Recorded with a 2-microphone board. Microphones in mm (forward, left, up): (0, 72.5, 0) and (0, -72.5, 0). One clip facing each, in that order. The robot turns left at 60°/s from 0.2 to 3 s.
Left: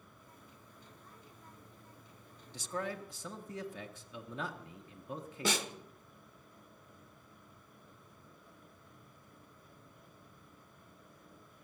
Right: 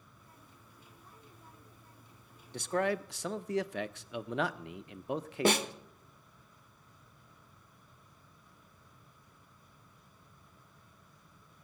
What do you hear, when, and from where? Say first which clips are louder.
2.5 s a man speaking: right 8 dB; 60° right (ahead or behind), 0.6 m; by 5.7 s 85° right, 0.6 m
5.5 s a snare drum: right 7 dB; 60° right (ahead or behind), 0.9 m